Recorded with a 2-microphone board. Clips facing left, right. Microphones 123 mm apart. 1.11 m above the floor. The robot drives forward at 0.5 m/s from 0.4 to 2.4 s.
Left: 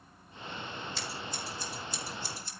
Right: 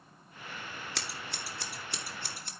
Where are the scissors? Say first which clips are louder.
Left 2 dB; 75° right (ahead or behind), 2 m; by 2.5 s 60° right (ahead or behind), 2.5 m.